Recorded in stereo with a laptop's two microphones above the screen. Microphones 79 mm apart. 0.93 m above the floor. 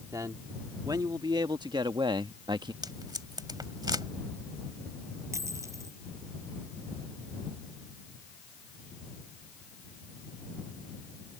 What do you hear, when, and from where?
0.1 s a man speaking: 45° right (ahead or behind); by 2.7 s 65° right (ahead or behind)
2.8 s tape being pulled: 60° right (ahead or behind)
5.3 s a dropped coin: 40° right (ahead or behind)